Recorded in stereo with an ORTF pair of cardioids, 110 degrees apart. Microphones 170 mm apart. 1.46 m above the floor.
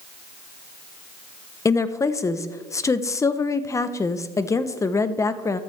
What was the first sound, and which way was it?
A woman speaking, 20° left.